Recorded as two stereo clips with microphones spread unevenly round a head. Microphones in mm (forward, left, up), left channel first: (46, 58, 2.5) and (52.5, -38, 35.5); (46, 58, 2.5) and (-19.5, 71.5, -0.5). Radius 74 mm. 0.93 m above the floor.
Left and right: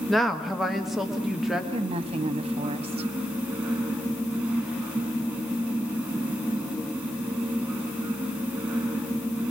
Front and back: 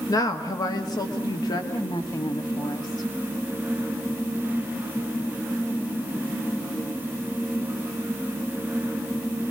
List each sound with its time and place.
0.1 s a woman speaking: 15° left, 1.6 m; by 1.6 s 5° left, 2.5 m
1.7 s a woman speaking: 60° right, 1.8 m